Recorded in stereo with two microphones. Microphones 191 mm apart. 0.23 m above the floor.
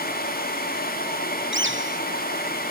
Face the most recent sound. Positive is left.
turn(degrees=-80)